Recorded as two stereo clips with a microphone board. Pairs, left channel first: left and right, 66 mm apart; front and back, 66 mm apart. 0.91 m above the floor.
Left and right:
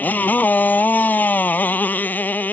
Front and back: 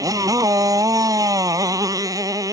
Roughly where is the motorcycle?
Behind left.